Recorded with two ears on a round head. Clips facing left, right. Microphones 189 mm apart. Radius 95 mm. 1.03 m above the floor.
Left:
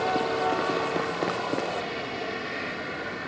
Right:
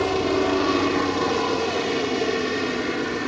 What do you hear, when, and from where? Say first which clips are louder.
0.0 s a helicopter: right 5 dB; 65° right (ahead or behind)